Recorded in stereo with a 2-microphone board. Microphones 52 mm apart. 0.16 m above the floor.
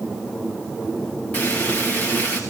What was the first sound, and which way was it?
Frying, 30° left (ahead or behind).